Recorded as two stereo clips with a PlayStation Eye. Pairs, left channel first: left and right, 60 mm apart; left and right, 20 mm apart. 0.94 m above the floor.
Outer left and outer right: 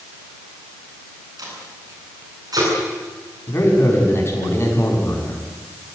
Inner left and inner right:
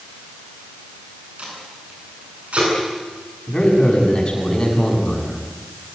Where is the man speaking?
40° left (ahead or behind), 7 m.